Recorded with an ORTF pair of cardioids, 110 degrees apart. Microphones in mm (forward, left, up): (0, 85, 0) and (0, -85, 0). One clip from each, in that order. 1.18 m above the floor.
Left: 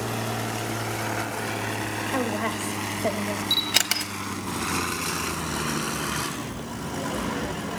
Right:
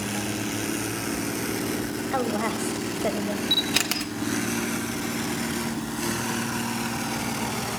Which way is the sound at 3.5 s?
15° left.